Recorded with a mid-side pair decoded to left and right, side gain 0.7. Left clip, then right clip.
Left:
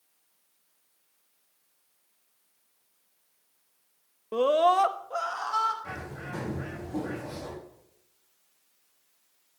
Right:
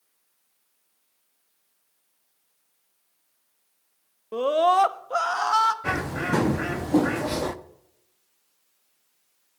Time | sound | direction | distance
4.3 | a scream | 5° left | 0.9 m
5.8 | a bird | 60° right | 0.9 m